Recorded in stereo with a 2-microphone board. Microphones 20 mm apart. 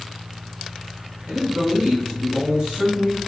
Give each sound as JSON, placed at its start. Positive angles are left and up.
{"t": 1.3, "sound": "a man speaking", "side_deg": -60, "distance_m": 3.0}